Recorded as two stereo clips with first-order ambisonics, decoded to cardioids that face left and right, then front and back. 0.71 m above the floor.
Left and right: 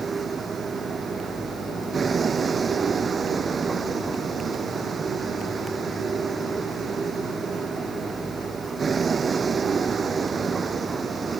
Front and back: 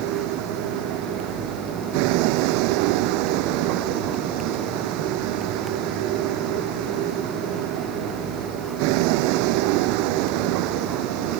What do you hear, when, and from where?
0.0 s a vehicle: 165° right